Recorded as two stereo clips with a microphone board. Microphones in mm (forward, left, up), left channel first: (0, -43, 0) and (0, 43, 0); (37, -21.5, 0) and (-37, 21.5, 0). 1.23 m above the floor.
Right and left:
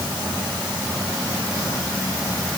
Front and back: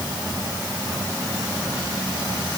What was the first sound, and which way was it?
Only background noise.